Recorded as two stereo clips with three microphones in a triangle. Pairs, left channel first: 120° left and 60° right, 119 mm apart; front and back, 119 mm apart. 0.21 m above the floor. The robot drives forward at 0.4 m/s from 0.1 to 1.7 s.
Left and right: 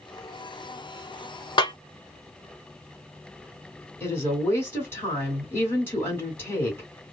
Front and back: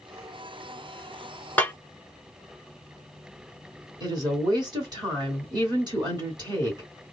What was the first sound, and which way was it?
A snare drum, 75° left.